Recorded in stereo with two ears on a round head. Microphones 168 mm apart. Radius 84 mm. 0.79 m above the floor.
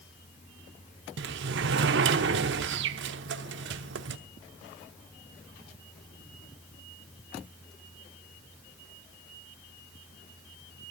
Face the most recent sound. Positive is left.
turn(degrees=-65)  # may be behind; listen again after turning